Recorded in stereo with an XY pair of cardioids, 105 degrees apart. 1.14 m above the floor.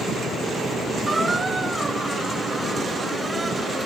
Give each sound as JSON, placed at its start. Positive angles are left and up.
{"t": 1.1, "sound": "a squeak", "azimuth_deg": -20}